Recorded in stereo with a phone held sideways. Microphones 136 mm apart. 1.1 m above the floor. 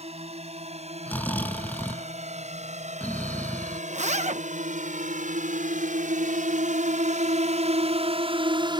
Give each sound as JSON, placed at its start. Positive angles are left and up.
{"t": 0.0, "sound": "a drone", "side_deg": -50}
{"t": 1.1, "sound": "snoring", "side_deg": 10}
{"t": 3.9, "sound": "a zipper", "side_deg": -60}